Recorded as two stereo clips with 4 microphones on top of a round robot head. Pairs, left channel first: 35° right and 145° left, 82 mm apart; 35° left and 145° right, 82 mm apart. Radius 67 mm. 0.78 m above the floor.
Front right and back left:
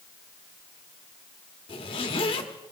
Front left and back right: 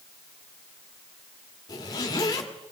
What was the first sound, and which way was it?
A zipper, 15° right.